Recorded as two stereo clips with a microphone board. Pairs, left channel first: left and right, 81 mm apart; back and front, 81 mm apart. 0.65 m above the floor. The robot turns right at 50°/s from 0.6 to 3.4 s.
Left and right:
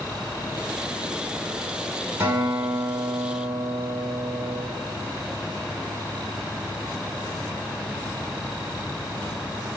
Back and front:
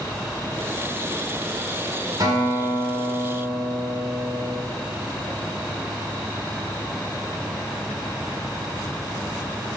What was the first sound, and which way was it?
A guitar, 35° right.